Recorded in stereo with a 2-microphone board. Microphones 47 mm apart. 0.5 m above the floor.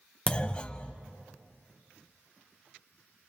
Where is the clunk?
25° left (ahead or behind), 0.7 m.